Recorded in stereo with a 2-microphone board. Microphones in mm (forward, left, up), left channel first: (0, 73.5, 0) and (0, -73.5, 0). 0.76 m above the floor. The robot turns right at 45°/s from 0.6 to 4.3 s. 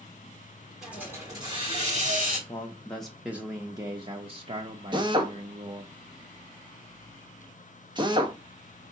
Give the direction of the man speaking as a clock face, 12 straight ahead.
7 o'clock.